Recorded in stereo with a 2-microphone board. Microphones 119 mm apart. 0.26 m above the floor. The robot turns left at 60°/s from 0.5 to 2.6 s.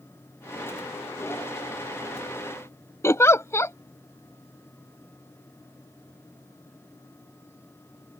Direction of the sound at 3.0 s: 25° left (ahead or behind).